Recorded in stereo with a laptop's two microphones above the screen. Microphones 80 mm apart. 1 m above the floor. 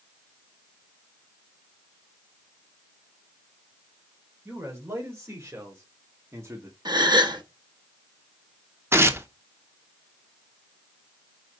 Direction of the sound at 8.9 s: 30° right (ahead or behind).